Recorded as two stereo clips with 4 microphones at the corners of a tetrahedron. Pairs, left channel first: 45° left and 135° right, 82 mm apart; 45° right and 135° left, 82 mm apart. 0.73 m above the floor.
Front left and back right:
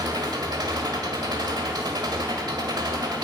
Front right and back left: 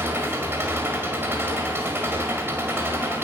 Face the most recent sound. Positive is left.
turn(degrees=-165)